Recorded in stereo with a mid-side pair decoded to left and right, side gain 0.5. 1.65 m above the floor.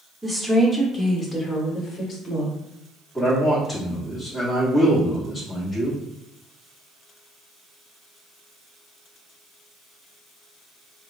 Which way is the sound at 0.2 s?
Straight ahead.